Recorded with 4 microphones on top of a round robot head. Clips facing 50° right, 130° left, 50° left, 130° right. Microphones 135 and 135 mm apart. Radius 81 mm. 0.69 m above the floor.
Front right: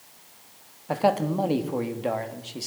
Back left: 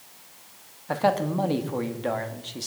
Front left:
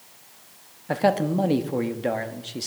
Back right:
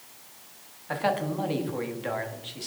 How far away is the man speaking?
About 1.2 m.